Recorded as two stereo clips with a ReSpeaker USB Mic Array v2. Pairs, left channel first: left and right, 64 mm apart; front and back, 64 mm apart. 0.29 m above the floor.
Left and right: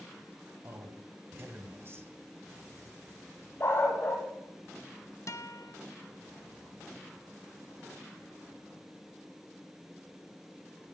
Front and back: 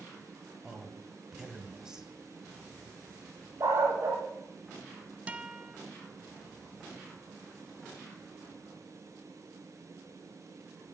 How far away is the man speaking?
About 2.0 m.